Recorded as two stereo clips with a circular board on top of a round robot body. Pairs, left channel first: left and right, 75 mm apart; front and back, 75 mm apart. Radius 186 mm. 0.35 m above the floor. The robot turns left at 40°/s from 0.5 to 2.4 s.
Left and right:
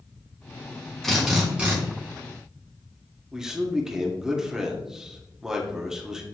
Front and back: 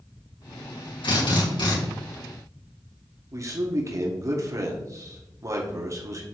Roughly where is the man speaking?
Behind.